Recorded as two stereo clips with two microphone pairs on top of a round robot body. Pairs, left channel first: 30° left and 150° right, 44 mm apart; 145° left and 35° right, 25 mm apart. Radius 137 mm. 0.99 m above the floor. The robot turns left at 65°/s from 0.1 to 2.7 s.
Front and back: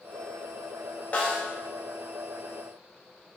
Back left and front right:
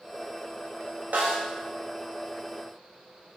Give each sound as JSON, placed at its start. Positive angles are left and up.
{"t": 1.1, "sound": "a snare drum", "azimuth_deg": -30, "distance_m": 0.7}